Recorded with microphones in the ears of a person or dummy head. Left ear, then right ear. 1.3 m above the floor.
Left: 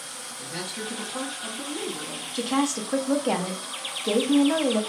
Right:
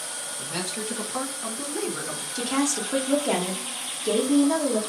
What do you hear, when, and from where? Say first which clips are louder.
0.4 s a man speaking: right 1 dB; 35° right (ahead or behind), 1.0 m
2.4 s a woman speaking: left 1 dB; 15° left (ahead or behind), 0.6 m